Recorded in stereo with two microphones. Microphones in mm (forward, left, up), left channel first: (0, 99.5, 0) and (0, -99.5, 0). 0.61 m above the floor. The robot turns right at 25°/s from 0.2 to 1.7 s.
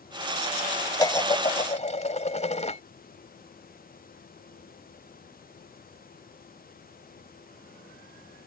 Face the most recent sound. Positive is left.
turn(degrees=35)  # may be behind; listen again after turning